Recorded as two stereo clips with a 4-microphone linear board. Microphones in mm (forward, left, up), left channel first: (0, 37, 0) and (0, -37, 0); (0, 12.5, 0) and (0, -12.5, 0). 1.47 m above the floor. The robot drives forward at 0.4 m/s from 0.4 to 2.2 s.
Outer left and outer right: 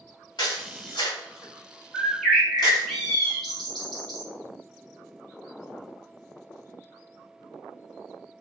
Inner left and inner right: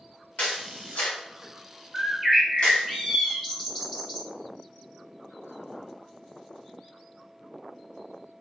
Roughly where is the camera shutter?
Left.